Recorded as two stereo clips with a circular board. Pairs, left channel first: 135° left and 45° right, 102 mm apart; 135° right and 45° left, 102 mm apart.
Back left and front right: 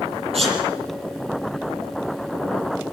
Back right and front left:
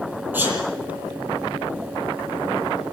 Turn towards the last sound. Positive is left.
turn(degrees=-25)